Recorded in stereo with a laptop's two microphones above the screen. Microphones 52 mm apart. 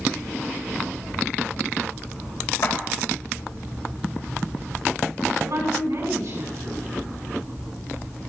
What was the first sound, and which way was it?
A clap, 80° left.